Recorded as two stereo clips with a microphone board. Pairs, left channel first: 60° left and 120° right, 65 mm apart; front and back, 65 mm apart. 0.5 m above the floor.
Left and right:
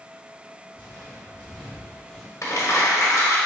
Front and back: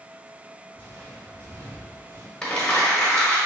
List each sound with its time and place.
0.7 s footsteps: 140° left, 1.6 m
2.4 s crumpling: 75° left, 1.3 m